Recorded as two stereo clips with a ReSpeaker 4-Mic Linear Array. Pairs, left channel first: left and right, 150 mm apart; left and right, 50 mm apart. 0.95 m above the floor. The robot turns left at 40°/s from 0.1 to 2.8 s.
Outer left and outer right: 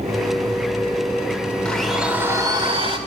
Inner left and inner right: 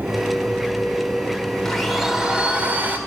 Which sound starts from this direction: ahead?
A blender, at 1.6 s.